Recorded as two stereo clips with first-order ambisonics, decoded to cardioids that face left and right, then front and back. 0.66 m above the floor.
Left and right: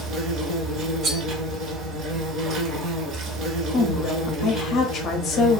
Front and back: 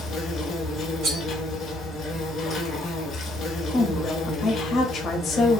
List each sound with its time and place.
0.0 s an insect: 60° right, 0.7 m
1.0 s cutlery clinking: 140° right, 0.7 m
3.7 s a woman speaking: 55° left, 0.7 m